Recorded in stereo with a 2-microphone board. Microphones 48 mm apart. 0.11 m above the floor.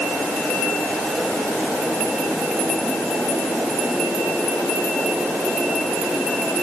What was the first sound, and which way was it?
Only background noise.